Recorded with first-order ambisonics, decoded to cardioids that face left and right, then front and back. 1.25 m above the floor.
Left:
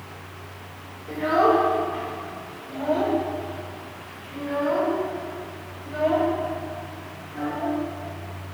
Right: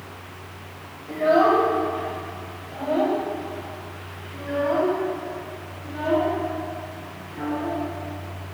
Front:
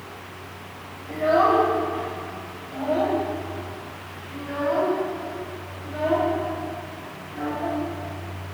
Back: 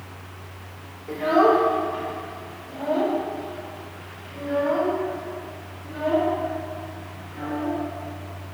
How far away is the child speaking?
About 2.5 m.